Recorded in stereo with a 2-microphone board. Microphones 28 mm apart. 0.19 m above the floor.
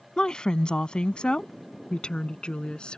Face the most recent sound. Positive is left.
turn(degrees=35)  # may be behind; listen again after turning